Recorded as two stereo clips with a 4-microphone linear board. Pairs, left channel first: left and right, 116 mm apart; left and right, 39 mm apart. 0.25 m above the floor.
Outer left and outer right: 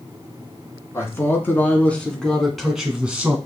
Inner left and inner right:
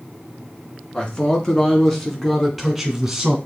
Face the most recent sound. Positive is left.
turn(degrees=-15)  # may be behind; listen again after turning